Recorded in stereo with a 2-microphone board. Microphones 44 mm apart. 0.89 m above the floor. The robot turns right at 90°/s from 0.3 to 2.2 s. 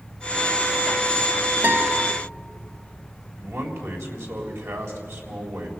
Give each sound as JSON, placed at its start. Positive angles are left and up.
{"t": 1.6, "sound": "a guitar", "azimuth_deg": -145, "distance_m": 2.5}
{"t": 3.4, "sound": "a man speaking", "side_deg": -85, "distance_m": 3.5}